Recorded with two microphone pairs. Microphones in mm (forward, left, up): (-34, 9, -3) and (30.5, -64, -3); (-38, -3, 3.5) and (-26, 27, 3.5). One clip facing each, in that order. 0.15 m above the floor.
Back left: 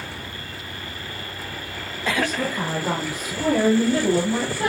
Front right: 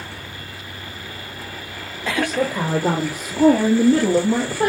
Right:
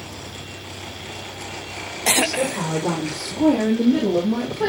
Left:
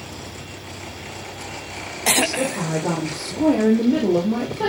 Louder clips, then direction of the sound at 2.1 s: Front right 5 dB, right 1 dB; 30° right.